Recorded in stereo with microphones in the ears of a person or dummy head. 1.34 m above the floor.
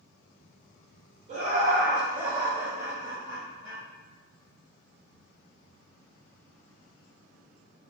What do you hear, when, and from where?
1.3 s laughter: 50° right (ahead or behind), 0.8 m; by 3.8 s 10° left (ahead or behind), 1.8 m